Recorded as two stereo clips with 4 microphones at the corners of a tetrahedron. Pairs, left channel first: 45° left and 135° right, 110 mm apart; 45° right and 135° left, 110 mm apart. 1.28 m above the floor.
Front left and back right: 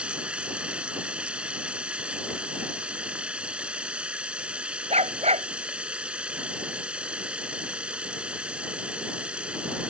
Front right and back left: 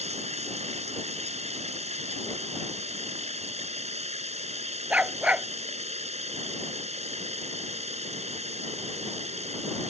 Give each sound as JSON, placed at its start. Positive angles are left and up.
{"t": 0.0, "sound": "running water", "azimuth_deg": 145}
{"t": 4.9, "sound": "a dog barking", "azimuth_deg": -145}